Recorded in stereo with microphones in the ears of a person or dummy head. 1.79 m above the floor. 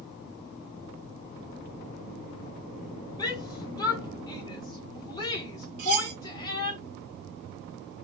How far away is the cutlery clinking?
About 1.6 m.